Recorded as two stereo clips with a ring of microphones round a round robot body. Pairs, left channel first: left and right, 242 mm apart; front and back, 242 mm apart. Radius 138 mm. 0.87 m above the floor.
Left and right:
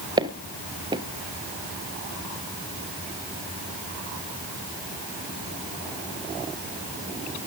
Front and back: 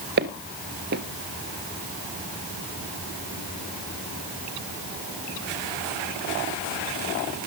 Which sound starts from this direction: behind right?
Footsteps, at 0.2 s.